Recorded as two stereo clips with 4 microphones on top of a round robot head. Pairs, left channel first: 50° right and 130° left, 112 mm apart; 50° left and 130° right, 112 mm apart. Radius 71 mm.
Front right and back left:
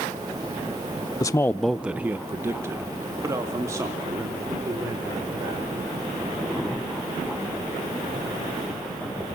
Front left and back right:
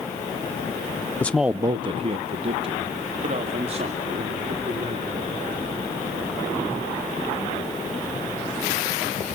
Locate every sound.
1.2 s a man speaking: 15° right, 0.6 m; by 5.9 s 165° right, 5.5 m